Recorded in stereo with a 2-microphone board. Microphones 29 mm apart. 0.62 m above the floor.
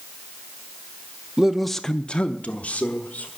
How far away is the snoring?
I don't hear snoring.